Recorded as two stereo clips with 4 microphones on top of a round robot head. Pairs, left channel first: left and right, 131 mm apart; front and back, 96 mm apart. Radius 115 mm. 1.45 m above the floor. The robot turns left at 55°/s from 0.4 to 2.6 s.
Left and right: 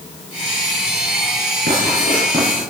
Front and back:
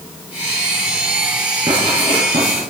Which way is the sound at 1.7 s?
120° right.